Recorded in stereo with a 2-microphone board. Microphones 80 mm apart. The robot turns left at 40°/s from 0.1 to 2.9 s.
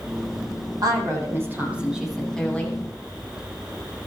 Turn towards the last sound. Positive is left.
turn(degrees=150)